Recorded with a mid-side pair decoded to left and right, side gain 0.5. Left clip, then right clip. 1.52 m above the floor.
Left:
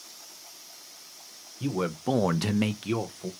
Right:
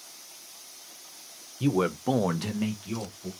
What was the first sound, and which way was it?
A man speaking, 30° right.